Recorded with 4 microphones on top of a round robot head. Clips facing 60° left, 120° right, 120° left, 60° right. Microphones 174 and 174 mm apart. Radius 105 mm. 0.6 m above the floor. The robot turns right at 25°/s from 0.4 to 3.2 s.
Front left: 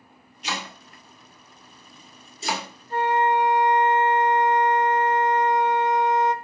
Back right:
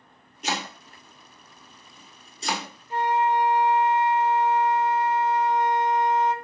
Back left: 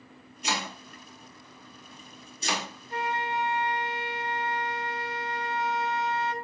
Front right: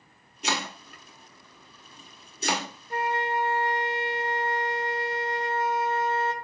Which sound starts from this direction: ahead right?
A flute, at 2.9 s.